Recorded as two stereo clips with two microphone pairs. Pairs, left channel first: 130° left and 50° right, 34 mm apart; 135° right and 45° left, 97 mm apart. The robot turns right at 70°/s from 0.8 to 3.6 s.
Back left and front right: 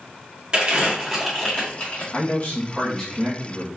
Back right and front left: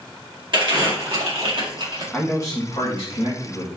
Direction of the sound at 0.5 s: 10° left.